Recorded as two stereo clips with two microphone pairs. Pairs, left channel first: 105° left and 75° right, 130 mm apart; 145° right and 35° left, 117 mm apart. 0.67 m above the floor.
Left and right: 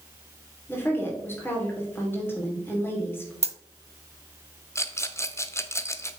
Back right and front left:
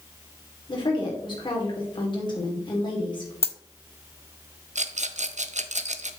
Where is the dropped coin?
105° right, 0.6 m.